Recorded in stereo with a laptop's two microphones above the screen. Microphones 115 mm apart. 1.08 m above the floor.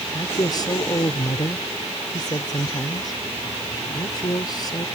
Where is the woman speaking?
35° left (ahead or behind).